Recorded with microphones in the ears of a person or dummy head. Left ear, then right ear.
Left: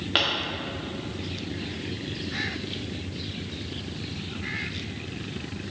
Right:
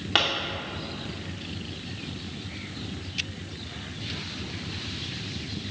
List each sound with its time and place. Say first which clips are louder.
0.1 s a pop: right 1 dB; 5° right (ahead or behind), 0.6 m